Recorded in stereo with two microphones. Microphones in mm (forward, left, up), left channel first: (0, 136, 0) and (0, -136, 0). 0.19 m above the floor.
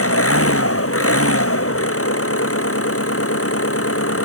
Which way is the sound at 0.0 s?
55° left (ahead or behind).